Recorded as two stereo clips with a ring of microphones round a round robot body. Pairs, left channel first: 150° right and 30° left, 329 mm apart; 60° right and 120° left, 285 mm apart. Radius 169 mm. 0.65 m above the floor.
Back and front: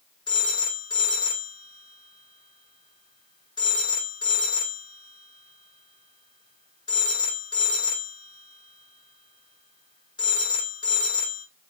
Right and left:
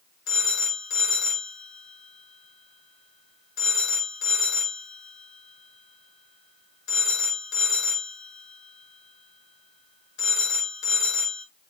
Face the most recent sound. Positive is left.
turn(degrees=-75)